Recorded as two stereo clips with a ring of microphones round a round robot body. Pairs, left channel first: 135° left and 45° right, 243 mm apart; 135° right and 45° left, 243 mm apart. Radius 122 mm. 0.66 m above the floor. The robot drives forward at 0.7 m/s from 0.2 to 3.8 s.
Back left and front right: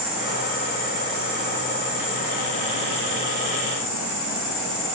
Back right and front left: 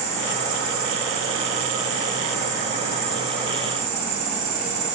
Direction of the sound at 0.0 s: 80° left.